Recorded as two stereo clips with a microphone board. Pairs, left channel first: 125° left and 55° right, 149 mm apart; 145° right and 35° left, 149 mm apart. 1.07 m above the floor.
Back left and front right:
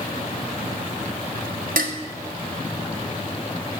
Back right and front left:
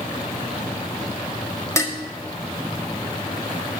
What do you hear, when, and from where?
1.8 s dishes clattering: 75° right, 1.5 m